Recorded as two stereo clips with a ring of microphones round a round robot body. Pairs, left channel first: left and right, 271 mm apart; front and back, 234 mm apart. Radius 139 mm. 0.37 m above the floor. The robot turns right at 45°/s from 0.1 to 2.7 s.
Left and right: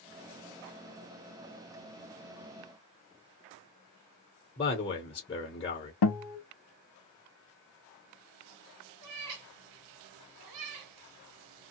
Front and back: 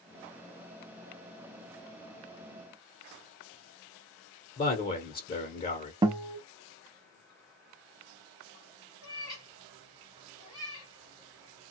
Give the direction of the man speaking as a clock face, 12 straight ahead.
11 o'clock.